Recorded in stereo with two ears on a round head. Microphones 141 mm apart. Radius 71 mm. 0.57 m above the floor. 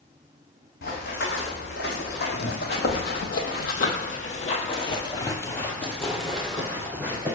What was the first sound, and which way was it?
Running footsteps, 75° left (ahead or behind).